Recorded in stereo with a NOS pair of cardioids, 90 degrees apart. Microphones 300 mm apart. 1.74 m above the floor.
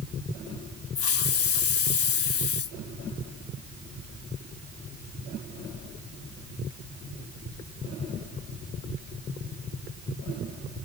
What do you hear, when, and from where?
0.9 s a hiss: 50° left